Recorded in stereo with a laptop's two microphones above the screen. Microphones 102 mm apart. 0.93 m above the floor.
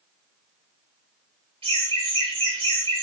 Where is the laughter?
65° right (ahead or behind), 1.4 m.